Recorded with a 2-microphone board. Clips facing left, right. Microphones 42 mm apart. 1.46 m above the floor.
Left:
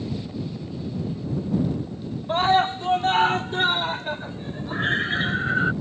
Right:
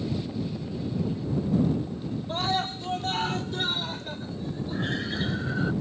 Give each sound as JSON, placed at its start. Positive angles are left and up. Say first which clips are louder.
{"t": 2.3, "sound": "a scream", "louder": "left 10 dB", "side_deg": 35}